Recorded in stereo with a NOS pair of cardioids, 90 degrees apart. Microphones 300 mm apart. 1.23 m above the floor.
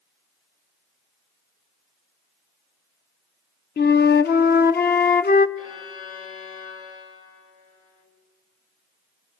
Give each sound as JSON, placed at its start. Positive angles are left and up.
{"t": 3.8, "sound": "a flute", "azimuth_deg": 35, "distance_m": 0.7}
{"t": 5.6, "sound": "a violin", "azimuth_deg": 50, "distance_m": 4.5}